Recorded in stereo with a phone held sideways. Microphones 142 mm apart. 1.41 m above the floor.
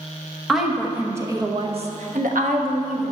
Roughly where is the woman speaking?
Centre.